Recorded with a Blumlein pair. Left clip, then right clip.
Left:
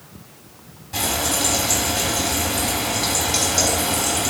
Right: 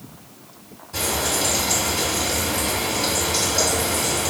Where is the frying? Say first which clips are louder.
Left 1 dB; 40° left, 2.0 m.